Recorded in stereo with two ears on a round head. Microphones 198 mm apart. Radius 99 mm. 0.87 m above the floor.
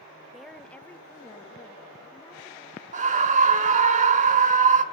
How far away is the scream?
About 1.5 m.